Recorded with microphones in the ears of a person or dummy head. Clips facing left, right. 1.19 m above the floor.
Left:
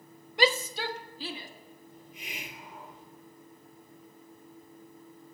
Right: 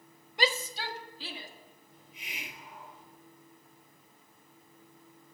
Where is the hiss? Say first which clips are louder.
Left 3 dB; 40° left (ahead or behind), 3.5 m.